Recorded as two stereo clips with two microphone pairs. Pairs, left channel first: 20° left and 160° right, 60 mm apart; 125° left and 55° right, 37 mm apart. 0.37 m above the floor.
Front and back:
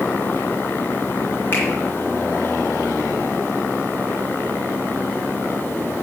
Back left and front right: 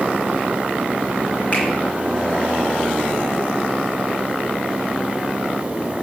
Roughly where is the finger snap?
Left.